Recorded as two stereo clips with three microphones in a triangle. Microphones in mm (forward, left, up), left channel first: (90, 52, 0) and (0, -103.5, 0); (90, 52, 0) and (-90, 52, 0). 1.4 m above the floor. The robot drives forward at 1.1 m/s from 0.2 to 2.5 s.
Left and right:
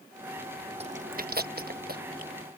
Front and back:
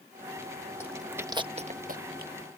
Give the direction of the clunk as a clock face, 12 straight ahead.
I don't hear a clunk.